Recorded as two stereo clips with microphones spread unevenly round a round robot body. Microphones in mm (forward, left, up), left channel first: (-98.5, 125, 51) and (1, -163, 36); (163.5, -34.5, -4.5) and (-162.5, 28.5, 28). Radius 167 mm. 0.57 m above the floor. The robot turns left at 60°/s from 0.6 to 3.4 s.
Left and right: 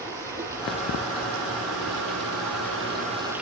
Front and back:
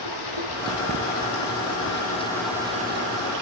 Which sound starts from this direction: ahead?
Running water, at 0.0 s.